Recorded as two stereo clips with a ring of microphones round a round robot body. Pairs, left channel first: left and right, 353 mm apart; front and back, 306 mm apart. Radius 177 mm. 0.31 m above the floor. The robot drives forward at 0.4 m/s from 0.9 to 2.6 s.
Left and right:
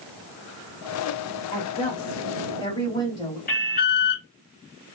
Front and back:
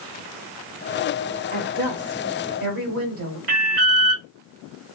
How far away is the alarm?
About 0.9 m.